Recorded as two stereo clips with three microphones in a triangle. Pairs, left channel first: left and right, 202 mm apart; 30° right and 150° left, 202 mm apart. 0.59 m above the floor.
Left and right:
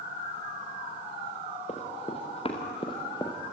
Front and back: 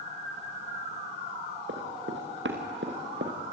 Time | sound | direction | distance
1.7 | running footsteps | 145° left | 4.5 m